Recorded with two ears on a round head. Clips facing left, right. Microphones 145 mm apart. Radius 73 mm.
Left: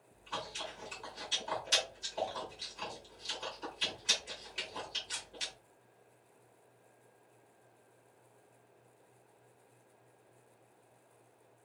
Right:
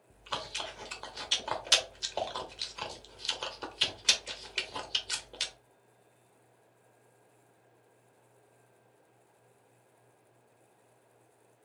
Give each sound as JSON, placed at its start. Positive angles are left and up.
{"t": 0.1, "sound": "chewing", "side_deg": -80, "distance_m": 1.2}